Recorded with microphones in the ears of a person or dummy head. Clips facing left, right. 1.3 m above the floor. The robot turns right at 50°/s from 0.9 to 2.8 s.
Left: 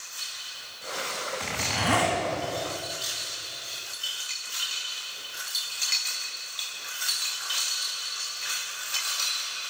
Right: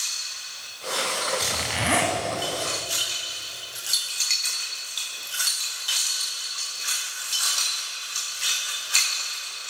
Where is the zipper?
170° right, 2.5 m; by 2.1 s 135° right, 2.5 m.